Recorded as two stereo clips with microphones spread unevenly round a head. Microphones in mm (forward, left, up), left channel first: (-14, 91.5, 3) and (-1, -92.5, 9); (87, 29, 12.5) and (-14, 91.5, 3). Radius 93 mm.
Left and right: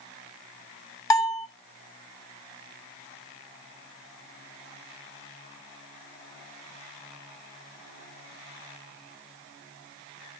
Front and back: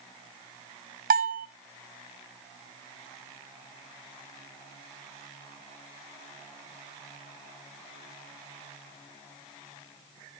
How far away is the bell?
About 0.7 m.